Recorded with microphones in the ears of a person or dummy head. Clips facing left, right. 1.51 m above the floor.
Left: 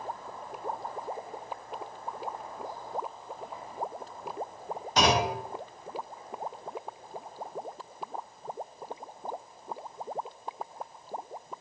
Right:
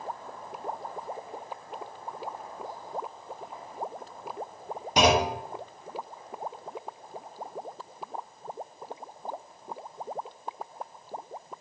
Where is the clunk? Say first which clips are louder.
Right 3 dB; 15° right (ahead or behind), 0.5 m.